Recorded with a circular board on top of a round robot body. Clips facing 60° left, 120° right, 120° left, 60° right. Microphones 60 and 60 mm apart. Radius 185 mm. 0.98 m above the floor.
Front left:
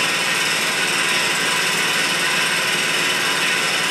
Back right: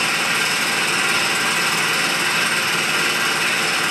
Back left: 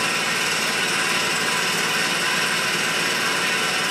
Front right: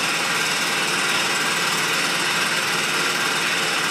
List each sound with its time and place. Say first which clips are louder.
0.0 s an engine running: even, even; 75° right, 7 m